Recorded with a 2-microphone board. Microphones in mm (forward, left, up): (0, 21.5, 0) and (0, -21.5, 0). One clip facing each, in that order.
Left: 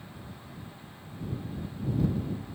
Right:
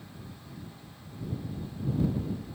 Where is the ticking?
I don't hear ticking.